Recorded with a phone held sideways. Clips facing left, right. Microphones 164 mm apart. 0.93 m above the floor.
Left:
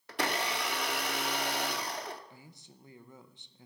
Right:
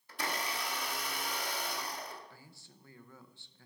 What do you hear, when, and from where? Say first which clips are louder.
0.1 s a blender: left 5 dB; 75° left (ahead or behind), 0.8 m
2.3 s a man speaking: left 3 dB; 20° left (ahead or behind), 0.7 m